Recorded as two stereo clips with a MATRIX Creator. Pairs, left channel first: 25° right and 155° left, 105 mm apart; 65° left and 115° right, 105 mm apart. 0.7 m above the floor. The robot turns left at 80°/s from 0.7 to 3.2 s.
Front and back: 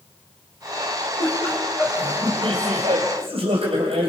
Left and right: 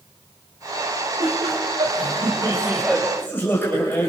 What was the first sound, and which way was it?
Laughter, 60° right.